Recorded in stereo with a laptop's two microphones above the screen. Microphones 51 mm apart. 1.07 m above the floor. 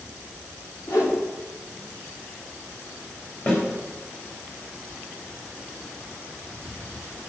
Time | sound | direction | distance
0.9 | a whoosh | 75° left (ahead or behind) | 2.5 m
3.5 | a snare drum | 40° left (ahead or behind) | 4 m